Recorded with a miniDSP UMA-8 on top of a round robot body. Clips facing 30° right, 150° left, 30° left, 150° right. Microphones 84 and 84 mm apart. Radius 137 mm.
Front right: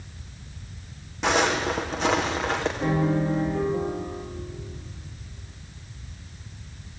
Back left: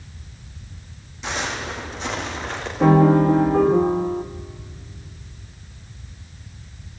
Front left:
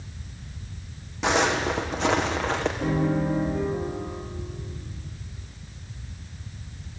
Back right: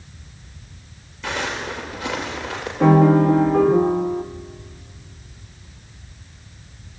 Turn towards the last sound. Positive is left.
turn(degrees=-175)